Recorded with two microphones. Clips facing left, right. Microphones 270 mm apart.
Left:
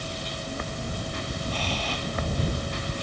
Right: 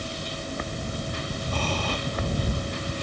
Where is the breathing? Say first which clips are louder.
Right 6 dB; 50° right (ahead or behind).